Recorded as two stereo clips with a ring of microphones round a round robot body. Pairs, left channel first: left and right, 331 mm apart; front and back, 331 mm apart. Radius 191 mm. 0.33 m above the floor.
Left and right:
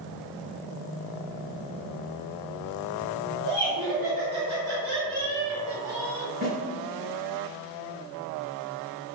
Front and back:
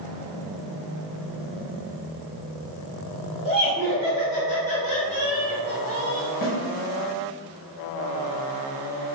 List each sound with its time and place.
3.5 s laughter: 65° right, 1.6 m; by 6.3 s 60° left, 1.5 m
6.4 s a snare drum: 40° right, 1.6 m